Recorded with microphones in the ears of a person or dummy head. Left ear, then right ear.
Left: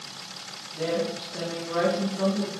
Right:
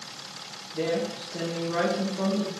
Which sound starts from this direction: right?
A woman speaking, at 0.7 s.